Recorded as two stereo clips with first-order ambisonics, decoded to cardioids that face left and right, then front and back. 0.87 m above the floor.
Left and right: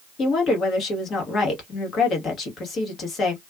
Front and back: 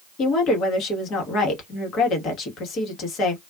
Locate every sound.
0.2 s a woman speaking: 40° left, 1.2 m